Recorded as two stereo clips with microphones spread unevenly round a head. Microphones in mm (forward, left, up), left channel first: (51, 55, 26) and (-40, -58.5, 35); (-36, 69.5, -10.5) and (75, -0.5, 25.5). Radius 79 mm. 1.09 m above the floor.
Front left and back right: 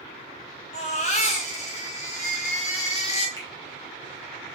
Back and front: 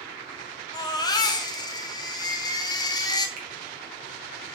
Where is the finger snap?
20° right, 1.3 m.